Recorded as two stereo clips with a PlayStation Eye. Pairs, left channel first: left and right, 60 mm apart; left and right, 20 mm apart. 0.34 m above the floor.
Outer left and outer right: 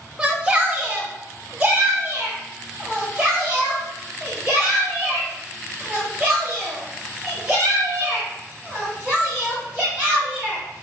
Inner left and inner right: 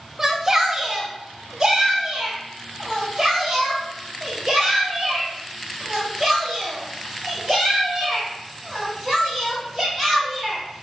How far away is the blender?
I don't hear a blender.